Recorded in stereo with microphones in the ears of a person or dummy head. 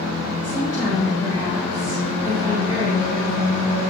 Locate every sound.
0.4 s a woman speaking: 35° right (ahead or behind), 5 m